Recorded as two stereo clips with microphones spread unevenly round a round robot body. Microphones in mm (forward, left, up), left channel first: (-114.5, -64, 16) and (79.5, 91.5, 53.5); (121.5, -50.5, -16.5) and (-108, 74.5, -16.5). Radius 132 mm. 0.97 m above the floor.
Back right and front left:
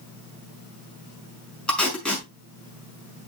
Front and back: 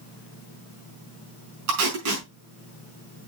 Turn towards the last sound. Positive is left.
turn(degrees=130)